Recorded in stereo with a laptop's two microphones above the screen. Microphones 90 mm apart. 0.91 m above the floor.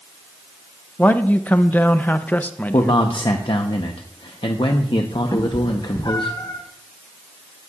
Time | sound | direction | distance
1.0 | a man speaking | 20° left (ahead or behind) | 0.5 m
2.7 | a man speaking | 65° left (ahead or behind) | 0.8 m
5.3 | a cat meowing | 50° left (ahead or behind) | 1.8 m